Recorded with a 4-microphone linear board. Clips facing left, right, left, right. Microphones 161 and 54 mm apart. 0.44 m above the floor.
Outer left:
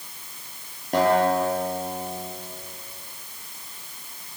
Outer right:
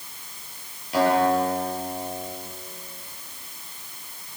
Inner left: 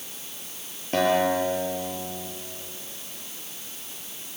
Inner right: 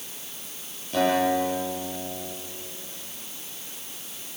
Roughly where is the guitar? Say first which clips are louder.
Even, even; left.